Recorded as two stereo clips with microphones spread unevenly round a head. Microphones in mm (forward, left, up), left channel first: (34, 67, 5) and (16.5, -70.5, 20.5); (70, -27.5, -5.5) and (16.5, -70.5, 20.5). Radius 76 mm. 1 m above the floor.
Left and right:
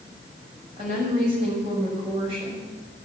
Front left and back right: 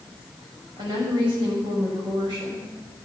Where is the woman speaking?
150° right, 6 m.